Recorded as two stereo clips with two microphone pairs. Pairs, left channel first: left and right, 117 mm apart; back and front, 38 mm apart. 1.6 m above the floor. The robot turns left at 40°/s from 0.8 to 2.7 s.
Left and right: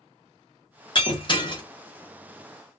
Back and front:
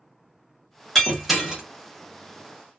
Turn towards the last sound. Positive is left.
turn(degrees=25)